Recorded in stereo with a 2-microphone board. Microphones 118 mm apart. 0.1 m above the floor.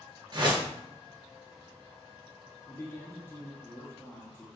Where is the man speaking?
20° left (ahead or behind), 1.4 m.